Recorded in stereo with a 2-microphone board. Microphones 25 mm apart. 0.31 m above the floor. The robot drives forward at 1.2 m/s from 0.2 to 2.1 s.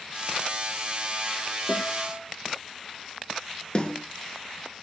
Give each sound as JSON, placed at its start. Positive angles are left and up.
{"t": 1.7, "sound": "a guitar", "side_deg": 75, "distance_m": 10.0}
{"t": 3.8, "sound": "a snare drum", "side_deg": 35, "distance_m": 4.0}